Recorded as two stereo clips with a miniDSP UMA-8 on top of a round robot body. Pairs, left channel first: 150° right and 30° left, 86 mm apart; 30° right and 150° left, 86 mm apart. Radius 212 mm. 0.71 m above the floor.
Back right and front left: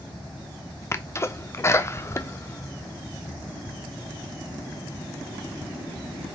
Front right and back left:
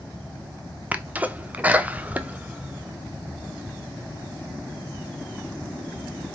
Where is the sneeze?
155° right, 0.7 m.